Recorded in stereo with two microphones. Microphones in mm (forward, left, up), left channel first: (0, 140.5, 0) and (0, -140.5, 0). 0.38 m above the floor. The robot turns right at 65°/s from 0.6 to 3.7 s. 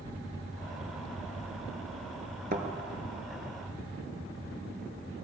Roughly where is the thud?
Right.